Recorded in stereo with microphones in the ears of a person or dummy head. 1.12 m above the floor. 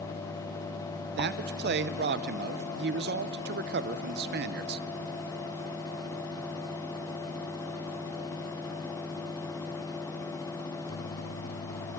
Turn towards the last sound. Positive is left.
turn(degrees=-55)  # may be behind; listen again after turning